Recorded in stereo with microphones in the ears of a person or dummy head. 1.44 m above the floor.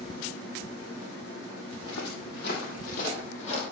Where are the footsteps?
65° left (ahead or behind), 3 m; by 3.6 s 35° left (ahead or behind), 3.5 m.